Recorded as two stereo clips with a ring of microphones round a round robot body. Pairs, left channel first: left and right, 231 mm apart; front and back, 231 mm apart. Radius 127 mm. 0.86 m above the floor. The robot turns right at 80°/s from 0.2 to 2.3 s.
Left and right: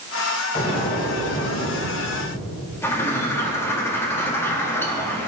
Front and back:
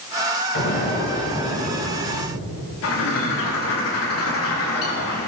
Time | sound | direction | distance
0.6 | an explosion | 35° left | 3 m
2.8 | a bird | 10° left | 2.0 m